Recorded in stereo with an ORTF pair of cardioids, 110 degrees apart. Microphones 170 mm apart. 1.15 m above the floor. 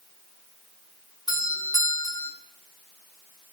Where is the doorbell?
25° left, 7.5 m.